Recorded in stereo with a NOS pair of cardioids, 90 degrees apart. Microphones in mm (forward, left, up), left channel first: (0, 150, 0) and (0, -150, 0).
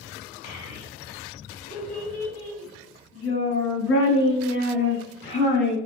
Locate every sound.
0.4 s a child speaking: 65° left, 5 m; by 5.8 s 35° left, 7.5 m